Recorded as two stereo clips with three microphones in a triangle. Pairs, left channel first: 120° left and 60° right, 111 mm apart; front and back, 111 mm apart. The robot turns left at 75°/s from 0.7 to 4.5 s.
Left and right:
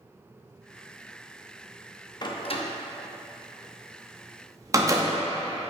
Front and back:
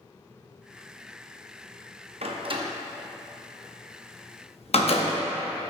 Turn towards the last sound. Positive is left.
turn(degrees=-5)